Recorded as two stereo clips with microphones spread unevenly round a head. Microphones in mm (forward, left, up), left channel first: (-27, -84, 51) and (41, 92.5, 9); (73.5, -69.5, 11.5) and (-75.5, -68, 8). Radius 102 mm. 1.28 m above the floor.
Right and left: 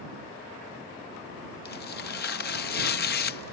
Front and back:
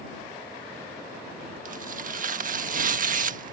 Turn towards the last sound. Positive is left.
turn(degrees=-150)